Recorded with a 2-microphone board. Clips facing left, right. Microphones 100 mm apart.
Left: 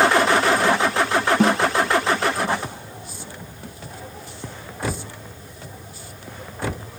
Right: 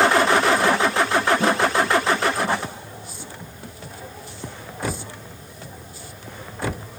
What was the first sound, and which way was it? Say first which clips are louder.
A snare drum: left 2 dB; 75° left (ahead or behind).